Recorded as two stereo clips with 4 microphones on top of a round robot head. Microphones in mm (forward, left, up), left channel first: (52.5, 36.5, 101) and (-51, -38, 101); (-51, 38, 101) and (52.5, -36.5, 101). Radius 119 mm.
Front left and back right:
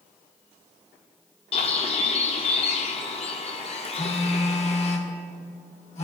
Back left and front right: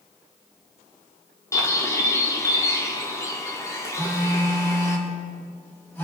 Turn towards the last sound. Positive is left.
turn(degrees=75)